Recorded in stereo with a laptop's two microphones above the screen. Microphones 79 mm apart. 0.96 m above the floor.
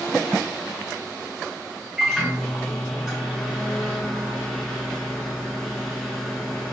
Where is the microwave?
Centre (ahead or behind), 1.4 m.